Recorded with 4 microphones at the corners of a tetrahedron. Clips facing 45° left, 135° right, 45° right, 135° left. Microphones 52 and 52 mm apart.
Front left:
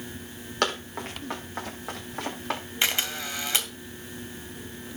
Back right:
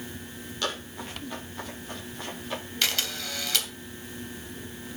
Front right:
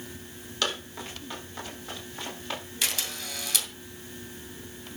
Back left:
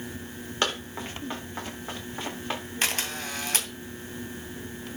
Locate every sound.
0.6 s running footsteps: 75° left, 6 m; by 2.6 s 70° left, 7 m
2.8 s a camera shutter: 105° left, 2 m